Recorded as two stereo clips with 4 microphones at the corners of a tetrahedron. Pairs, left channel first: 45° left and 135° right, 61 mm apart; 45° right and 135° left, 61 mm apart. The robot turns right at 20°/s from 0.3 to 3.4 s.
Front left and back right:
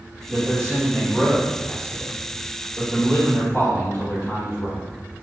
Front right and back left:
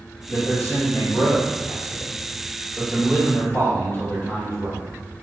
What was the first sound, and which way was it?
A man speaking, 45° right.